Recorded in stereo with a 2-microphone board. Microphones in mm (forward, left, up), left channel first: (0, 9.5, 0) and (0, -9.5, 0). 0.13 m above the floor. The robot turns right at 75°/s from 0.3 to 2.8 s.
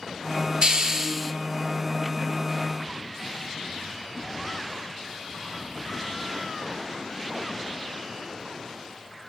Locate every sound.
0.6 s a hiss: 55° right, 0.6 m; by 1.3 s 5° right, 0.6 m